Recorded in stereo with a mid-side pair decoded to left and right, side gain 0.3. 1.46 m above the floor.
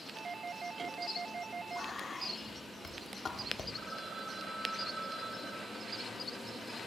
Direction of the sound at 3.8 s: 60° right.